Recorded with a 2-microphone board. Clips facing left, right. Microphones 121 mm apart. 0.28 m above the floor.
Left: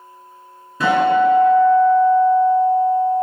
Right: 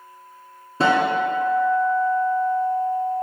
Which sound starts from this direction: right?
A guitar, at 0.8 s.